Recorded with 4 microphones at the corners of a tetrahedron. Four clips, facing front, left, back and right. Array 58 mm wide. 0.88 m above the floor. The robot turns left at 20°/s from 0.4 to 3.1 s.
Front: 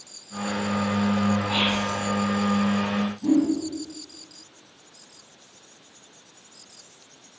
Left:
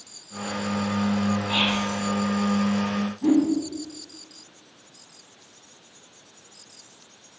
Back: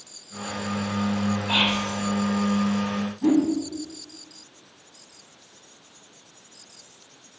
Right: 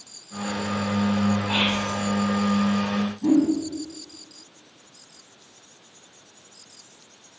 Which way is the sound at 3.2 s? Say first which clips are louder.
Even, back 1 dB; 155° left.